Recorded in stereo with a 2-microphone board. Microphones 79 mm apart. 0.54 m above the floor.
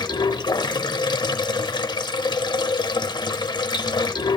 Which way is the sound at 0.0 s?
70° left (ahead or behind).